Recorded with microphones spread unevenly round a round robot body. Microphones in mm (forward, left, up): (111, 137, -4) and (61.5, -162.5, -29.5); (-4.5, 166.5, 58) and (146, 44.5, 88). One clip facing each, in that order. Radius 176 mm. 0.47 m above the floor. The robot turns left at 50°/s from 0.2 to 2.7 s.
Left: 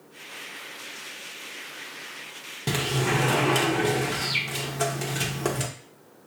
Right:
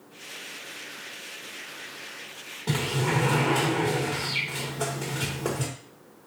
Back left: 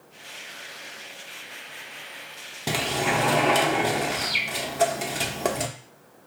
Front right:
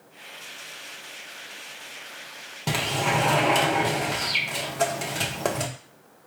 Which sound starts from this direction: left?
A sliding door, at 2.7 s.